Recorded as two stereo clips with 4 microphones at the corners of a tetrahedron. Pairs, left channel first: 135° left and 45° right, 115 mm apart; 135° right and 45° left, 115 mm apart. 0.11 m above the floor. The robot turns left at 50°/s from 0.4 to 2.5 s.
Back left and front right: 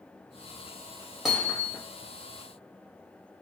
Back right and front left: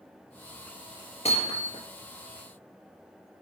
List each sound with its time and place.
1.2 s hammering: 130° right, 2.5 m; by 1.8 s 160° right, 2.5 m